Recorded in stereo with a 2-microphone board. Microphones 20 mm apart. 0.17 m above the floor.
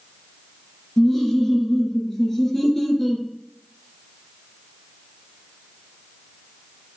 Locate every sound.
1.0 s laughter: 20° left (ahead or behind), 2 m